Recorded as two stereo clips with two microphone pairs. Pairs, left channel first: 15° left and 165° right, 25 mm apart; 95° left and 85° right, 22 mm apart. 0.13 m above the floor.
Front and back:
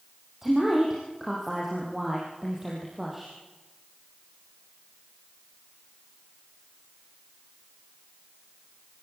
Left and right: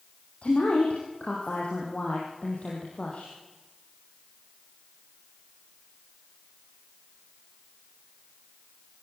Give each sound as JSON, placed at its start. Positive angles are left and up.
{"t": 0.4, "sound": "a woman speaking", "azimuth_deg": 120, "distance_m": 4.5}